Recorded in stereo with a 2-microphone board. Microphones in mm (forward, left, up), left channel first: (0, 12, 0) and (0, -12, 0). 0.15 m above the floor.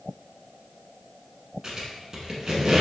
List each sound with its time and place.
1.6 s a squeak: 30° right (ahead or behind), 1.2 m